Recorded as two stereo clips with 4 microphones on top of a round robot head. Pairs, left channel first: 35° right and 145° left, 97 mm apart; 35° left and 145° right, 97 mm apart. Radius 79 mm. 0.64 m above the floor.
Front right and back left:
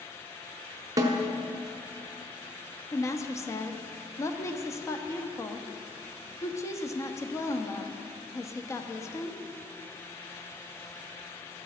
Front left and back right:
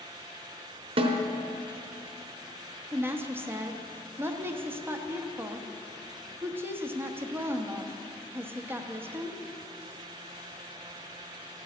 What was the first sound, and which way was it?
A snare drum, 165° right.